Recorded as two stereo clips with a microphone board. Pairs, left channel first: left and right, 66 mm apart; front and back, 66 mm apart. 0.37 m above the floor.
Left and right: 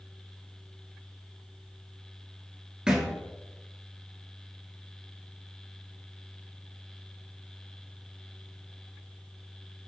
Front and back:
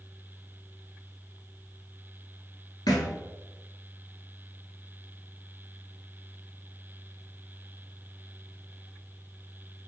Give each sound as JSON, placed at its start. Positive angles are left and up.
{"t": 2.9, "sound": "a thud", "azimuth_deg": -15, "distance_m": 1.1}